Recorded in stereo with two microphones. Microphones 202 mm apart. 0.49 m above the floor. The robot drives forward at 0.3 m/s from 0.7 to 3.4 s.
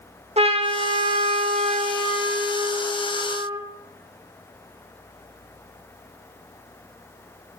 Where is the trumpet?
30° right (ahead or behind), 1.1 m; by 3.6 s 20° right (ahead or behind), 1.6 m.